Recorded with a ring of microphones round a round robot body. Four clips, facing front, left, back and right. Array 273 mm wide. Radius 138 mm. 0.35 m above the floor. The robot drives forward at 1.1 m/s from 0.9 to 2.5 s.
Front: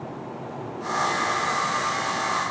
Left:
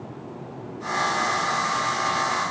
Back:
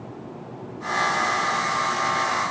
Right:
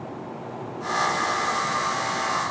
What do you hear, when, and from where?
Only background noise.